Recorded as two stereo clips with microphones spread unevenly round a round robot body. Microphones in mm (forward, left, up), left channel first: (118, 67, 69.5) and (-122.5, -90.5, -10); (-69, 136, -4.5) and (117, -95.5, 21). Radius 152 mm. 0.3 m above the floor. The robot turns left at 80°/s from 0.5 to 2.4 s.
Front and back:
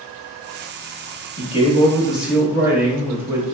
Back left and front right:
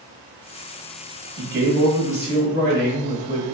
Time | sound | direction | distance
1.4 | a man speaking | 35° right | 0.9 m